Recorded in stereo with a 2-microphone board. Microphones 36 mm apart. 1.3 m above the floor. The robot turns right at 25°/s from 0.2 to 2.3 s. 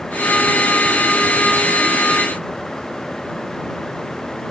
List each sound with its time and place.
Only background noise.